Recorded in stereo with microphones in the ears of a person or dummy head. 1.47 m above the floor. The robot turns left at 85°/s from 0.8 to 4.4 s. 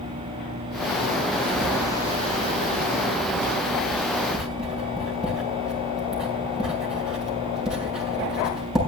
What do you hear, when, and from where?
1.4 s writing: 70° right (ahead or behind), 7 m; by 8.8 s 5° right (ahead or behind), 7 m